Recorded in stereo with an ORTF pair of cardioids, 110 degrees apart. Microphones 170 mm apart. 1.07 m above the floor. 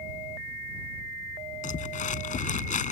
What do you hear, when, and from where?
1.6 s crumpling: 50° left